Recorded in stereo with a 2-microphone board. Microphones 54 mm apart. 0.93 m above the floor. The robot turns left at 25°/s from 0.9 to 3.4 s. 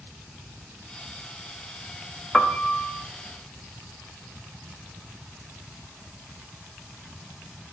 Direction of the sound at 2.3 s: 10° left (ahead or behind).